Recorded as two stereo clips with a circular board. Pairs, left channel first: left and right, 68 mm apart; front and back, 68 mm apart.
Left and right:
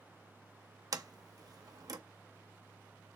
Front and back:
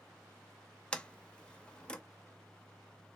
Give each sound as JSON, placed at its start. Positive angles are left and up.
{"t": 0.9, "sound": "a sliding door", "azimuth_deg": -75, "distance_m": 0.5}